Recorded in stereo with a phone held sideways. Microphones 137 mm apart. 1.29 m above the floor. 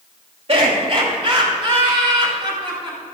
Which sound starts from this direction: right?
Laughter, at 0.5 s.